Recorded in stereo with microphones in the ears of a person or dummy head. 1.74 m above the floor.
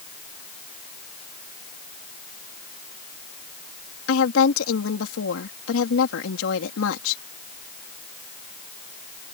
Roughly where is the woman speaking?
Left.